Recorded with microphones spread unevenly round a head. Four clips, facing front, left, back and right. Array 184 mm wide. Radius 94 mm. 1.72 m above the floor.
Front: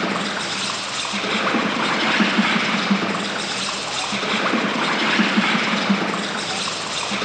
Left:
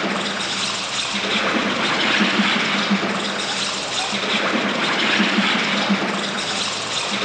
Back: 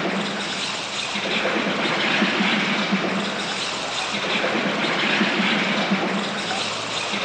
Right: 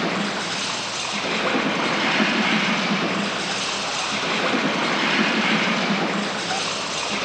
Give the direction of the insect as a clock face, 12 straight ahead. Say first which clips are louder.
Left 1 dB, front 1 dB; 12 o'clock.